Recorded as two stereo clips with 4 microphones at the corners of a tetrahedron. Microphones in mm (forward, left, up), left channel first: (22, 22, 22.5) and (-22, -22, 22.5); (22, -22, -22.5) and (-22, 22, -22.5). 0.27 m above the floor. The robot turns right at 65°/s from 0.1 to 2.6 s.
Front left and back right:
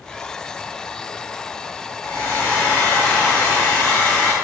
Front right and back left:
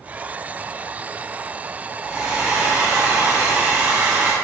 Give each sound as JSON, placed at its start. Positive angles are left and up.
{"t": 2.0, "sound": "a hair dryer", "azimuth_deg": 60, "distance_m": 1.5}